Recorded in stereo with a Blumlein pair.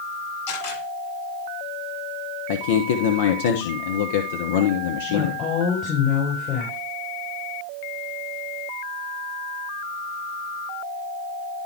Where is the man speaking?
55° left, 1.1 m.